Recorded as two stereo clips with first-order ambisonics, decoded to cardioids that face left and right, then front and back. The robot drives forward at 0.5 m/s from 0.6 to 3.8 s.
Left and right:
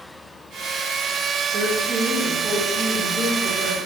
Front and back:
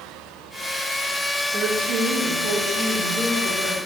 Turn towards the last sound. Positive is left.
turn(degrees=-170)